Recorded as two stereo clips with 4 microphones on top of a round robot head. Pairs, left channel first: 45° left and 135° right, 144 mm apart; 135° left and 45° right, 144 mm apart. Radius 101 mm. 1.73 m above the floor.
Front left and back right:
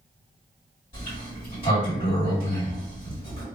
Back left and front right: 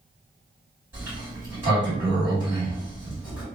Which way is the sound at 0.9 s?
20° left.